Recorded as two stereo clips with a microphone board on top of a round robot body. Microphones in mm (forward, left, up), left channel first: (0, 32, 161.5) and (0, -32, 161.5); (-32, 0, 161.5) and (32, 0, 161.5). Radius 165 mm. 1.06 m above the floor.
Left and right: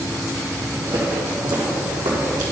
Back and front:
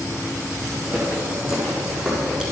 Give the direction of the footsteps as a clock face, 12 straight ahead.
2 o'clock.